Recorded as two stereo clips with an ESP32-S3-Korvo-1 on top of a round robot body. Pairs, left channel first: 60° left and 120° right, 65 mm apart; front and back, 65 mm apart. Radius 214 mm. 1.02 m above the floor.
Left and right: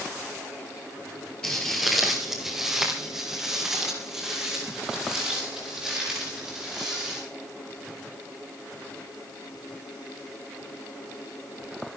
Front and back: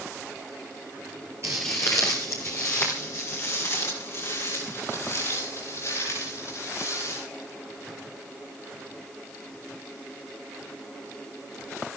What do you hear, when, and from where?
1.4 s footsteps: 135° left, 1.0 m; by 7.2 s 40° right, 9 m